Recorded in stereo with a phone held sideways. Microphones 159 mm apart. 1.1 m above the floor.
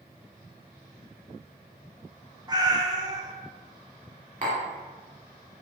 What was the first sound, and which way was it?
A cat meowing, 25° right (ahead or behind).